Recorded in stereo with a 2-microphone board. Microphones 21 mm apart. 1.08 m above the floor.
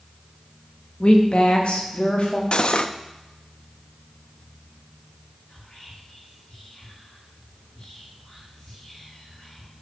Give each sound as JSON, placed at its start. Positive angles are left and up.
{"t": 1.0, "sound": "a woman speaking", "side_deg": 55, "distance_m": 1.6}
{"t": 2.5, "sound": "cutlery clinking", "side_deg": 55, "distance_m": 0.5}
{"t": 5.5, "sound": "whispering", "side_deg": 65, "distance_m": 5.5}